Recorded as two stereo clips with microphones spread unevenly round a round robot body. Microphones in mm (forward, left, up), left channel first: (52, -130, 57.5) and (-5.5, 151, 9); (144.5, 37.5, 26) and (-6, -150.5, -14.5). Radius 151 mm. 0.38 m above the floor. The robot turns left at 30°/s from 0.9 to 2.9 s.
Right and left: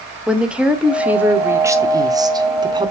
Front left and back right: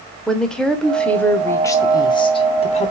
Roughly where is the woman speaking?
Behind.